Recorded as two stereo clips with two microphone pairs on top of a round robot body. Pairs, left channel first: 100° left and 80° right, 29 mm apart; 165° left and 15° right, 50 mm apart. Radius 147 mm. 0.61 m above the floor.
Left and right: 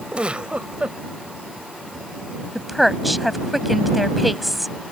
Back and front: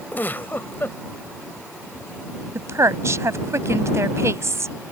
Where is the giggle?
140° right.